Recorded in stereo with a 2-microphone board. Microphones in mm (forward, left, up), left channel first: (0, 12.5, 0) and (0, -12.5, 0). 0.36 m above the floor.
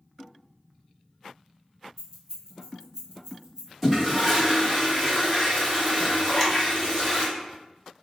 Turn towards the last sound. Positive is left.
turn(degrees=10)  # may be behind; listen again after turning